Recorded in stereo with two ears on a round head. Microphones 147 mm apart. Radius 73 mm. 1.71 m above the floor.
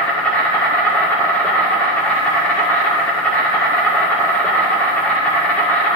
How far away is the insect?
About 1.5 m.